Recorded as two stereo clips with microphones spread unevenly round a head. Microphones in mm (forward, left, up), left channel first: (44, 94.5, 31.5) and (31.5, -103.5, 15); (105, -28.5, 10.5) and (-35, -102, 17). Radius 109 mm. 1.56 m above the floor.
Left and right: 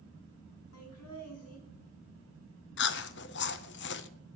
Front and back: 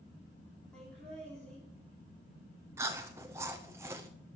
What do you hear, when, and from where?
0.7 s laughter: 115° left, 3.5 m
2.8 s chewing: 130° left, 0.5 m